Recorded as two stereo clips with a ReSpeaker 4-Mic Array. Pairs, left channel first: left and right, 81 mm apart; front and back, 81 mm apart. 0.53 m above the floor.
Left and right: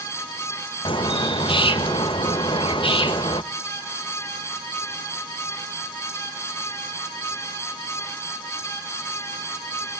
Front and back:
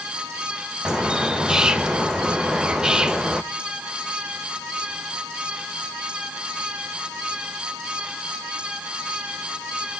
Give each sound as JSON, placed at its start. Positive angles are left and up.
{"t": 0.8, "sound": "a bird", "azimuth_deg": 100, "distance_m": 0.5}